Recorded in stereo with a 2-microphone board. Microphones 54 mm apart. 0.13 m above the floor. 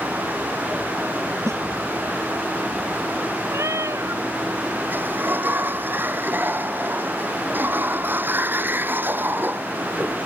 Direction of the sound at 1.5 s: 70° right (ahead or behind).